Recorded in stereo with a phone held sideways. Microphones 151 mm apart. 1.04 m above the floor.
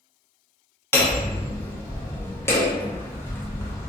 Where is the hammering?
15° left (ahead or behind), 0.8 m.